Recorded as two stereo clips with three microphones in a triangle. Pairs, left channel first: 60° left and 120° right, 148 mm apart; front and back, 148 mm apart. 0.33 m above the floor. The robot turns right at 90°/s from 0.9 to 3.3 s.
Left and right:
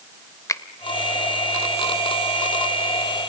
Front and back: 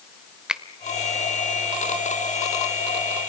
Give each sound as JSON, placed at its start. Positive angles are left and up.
{"t": 0.5, "sound": "a finger snap", "azimuth_deg": 100, "distance_m": 0.8}